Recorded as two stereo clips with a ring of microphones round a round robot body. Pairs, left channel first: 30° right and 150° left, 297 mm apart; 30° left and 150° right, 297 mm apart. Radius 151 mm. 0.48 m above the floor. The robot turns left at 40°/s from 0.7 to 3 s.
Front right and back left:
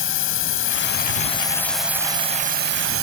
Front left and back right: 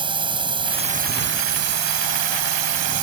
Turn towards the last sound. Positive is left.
turn(degrees=-170)